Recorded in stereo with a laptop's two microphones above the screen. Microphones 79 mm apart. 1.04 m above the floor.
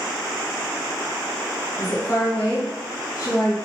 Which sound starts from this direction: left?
A woman speaking, at 1.8 s.